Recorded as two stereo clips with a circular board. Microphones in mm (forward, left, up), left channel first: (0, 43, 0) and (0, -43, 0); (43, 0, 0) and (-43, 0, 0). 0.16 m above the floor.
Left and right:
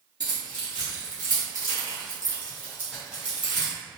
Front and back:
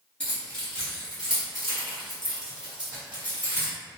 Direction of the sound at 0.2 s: 75° right.